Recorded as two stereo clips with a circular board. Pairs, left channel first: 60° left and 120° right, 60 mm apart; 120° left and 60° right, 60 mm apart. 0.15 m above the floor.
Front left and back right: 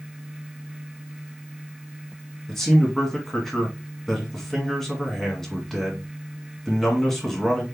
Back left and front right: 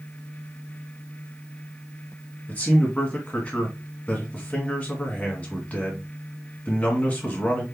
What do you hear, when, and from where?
2.5 s a man speaking: 135° left, 1.8 m